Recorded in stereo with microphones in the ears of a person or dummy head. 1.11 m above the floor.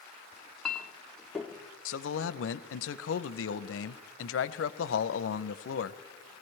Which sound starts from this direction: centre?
A clink, at 0.3 s.